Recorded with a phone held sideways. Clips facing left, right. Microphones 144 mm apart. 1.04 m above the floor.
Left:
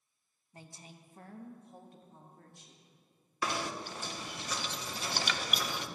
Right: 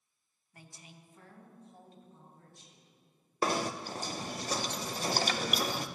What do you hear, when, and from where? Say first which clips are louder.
0.5 s a woman speaking: left 3 dB; 25° left (ahead or behind), 1.0 m; by 2.9 s 70° left (ahead or behind), 2.5 m
3.4 s knocking: right 4 dB; 40° right (ahead or behind), 0.6 m